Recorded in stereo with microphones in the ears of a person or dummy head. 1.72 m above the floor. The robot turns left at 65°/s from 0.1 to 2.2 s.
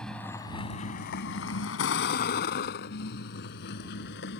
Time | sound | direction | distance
0.0 | a vehicle | centre (ahead or behind) | ?